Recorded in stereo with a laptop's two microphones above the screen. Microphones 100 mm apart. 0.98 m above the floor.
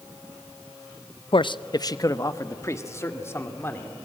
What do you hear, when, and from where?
1.3 s a man speaking: 60° left (ahead or behind), 0.5 m; by 4.0 s 25° left (ahead or behind), 2.5 m